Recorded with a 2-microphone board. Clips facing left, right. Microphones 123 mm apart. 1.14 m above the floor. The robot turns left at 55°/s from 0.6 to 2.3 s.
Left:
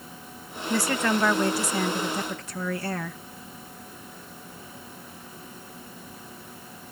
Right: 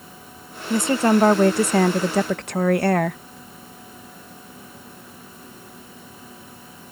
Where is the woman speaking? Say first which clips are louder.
Right 7 dB; 15° right; by 3.2 s 105° right.